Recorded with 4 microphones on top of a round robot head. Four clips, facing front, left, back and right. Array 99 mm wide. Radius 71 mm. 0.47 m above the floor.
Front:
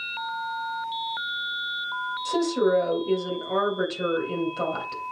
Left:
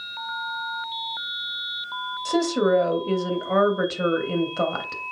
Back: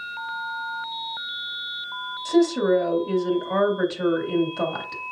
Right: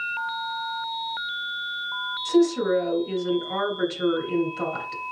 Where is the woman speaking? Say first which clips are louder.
Right 1 dB, back 4 dB; 85° left, 3 m.